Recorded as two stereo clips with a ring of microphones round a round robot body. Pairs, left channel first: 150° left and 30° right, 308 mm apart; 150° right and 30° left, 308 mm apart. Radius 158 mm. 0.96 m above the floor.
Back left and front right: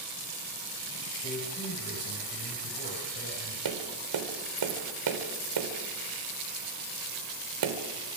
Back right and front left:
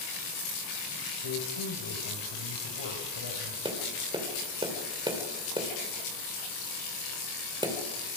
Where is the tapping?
45° right, 3.5 m.